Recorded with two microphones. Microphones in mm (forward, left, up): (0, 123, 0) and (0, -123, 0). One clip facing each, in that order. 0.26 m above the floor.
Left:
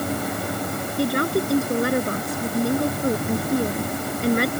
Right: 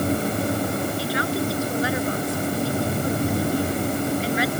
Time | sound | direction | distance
1.0 | a woman speaking | 55° left (ahead or behind) | ?